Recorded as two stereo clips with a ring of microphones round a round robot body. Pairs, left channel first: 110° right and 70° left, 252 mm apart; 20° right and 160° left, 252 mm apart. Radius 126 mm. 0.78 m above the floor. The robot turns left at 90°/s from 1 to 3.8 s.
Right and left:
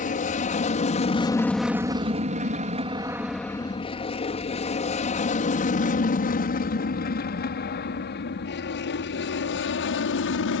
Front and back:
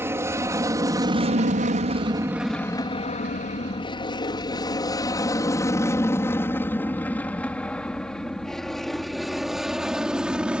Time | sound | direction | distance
0.0 | an aircraft | 130° right | ?